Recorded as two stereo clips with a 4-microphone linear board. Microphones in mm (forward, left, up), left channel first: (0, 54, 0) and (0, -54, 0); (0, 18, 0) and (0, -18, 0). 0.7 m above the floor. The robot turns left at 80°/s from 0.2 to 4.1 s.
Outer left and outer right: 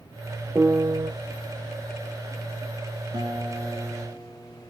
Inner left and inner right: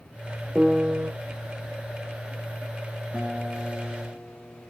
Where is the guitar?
125° right, 6 m; by 4.7 s 155° left, 6 m.